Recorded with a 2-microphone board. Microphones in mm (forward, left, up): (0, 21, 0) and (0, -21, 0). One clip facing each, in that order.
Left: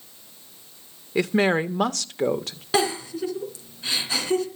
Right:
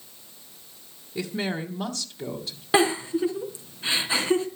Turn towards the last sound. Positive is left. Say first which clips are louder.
# right 2 dB
turn(degrees=-20)  # may be behind; listen again after turning